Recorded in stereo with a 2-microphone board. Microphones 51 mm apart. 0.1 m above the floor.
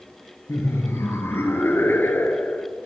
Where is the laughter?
60° left (ahead or behind), 2.5 m; by 2.7 s 30° left (ahead or behind), 1.4 m.